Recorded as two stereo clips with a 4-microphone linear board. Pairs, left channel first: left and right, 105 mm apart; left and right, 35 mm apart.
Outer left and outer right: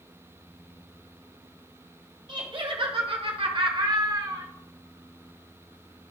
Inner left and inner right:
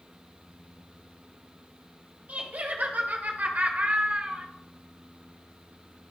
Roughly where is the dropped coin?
No dropped coin in this recording.